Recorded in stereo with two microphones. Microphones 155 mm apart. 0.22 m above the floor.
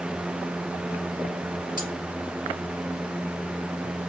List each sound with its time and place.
1.8 s cutlery clinking: 55° left (ahead or behind), 3 m